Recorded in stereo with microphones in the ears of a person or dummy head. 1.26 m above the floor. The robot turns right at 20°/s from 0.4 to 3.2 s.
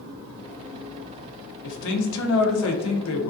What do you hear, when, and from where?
1.6 s a man speaking: 75° left, 0.7 m; by 3.3 s 105° left, 0.7 m